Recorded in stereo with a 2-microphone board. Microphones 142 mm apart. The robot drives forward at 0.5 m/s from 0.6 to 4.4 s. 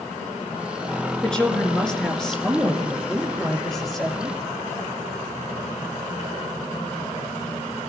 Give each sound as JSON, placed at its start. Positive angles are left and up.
{"t": 1.2, "sound": "a woman speaking", "side_deg": 5, "distance_m": 3.0}